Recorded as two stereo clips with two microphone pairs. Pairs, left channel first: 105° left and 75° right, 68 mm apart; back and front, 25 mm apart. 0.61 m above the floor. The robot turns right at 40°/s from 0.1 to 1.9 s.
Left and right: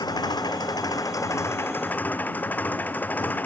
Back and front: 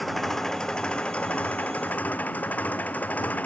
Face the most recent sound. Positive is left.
turn(degrees=165)